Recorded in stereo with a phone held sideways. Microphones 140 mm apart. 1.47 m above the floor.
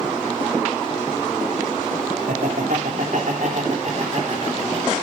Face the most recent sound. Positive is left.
turn(degrees=-50)  # may be behind; listen again after turning